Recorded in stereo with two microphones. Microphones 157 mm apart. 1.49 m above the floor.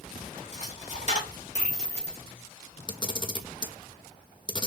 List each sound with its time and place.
0.5 s a dropped coin: 50° left (ahead or behind), 1.8 m
2.9 s a camera shutter: 30° left (ahead or behind), 0.6 m